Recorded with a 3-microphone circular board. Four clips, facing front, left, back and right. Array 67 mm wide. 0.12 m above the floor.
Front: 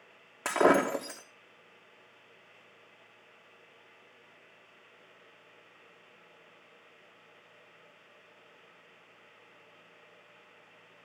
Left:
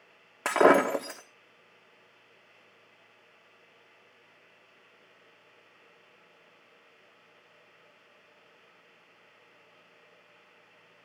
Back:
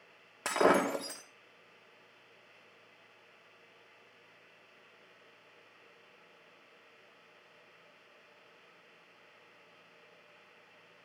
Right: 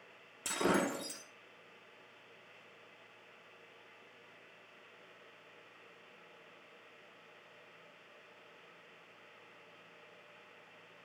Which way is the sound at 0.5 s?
80° left.